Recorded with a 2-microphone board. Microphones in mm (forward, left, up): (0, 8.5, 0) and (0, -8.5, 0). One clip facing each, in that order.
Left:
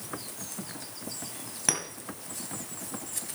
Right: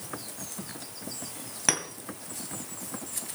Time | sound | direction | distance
1.7 | a clink | 15° right (ahead or behind) | 2 m